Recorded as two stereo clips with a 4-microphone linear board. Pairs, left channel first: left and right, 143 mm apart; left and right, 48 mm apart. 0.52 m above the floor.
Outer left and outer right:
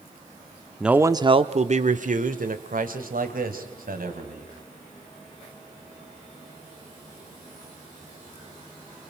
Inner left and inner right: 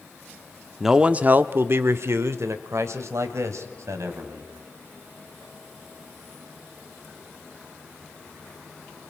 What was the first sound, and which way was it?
A man speaking, 5° right (ahead or behind).